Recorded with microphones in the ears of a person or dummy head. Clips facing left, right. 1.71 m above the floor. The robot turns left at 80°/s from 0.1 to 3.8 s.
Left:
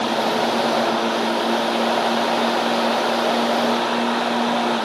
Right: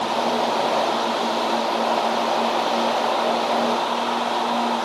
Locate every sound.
Only background noise.